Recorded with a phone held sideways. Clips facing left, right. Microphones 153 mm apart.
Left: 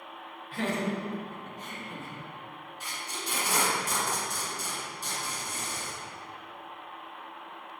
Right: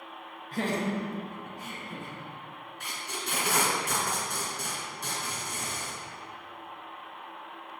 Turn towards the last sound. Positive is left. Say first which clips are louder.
# right 1 dB
turn(degrees=-65)  # may be behind; listen again after turning